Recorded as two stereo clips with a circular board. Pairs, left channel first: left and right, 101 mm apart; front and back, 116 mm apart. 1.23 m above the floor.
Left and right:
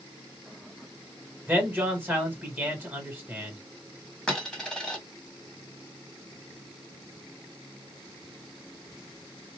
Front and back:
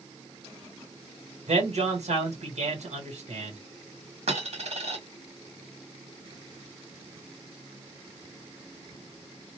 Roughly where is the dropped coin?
Behind.